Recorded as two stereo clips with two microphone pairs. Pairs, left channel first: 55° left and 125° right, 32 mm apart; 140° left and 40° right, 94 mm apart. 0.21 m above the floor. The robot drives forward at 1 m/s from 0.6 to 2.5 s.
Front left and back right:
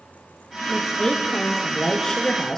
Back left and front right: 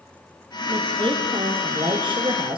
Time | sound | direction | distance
0.7 | a woman speaking | 15° right | 6.5 m